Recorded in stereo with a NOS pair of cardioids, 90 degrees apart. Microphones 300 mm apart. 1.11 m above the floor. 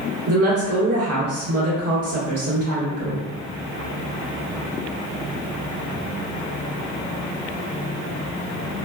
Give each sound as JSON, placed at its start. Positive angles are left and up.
{"t": 0.3, "sound": "a woman speaking", "azimuth_deg": -55, "distance_m": 1.4}